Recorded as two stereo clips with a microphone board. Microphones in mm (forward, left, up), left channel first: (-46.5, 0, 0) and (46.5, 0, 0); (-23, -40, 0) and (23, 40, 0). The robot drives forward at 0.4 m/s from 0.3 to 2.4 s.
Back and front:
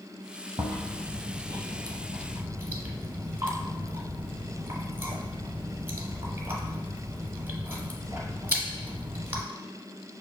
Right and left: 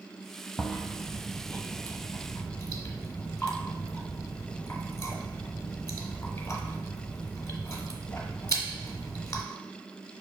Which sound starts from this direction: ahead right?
Chewing, at 0.6 s.